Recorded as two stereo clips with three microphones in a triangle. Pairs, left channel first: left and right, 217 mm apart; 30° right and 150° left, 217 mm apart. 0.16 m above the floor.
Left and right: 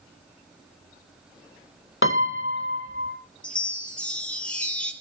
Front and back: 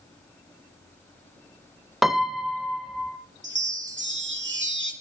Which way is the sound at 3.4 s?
175° left.